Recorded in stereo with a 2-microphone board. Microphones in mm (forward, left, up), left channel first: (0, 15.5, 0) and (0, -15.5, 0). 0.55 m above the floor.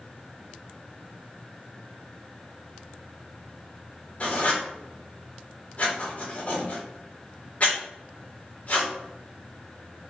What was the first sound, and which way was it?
Writing, 45° left (ahead or behind).